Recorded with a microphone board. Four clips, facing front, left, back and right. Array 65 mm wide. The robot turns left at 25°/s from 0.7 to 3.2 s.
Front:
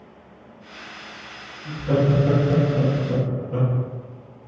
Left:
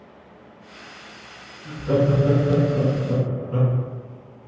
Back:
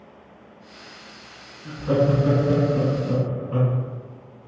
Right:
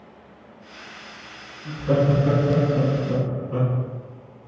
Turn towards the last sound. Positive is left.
turn(degrees=180)